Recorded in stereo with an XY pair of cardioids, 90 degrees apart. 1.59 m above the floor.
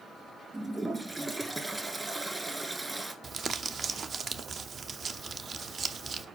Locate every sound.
0.5 s a toilet flushing: 20° right, 1.7 m
3.2 s crumpling: 50° right, 0.8 m